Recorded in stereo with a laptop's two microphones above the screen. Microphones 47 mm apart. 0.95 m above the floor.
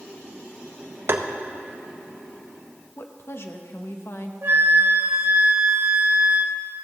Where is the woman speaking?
60° left (ahead or behind), 0.8 m.